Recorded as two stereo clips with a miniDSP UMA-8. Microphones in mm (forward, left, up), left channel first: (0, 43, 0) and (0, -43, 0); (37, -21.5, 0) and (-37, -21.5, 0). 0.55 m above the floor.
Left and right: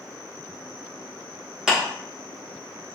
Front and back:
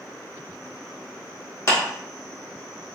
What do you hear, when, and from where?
1.7 s a clap: 15° right, 1.2 m